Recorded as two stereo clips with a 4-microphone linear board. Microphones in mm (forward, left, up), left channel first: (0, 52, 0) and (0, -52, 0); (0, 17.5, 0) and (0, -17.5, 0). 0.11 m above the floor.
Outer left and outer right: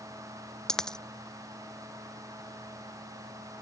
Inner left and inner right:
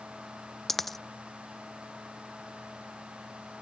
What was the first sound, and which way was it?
A dropped coin, 5° left (ahead or behind).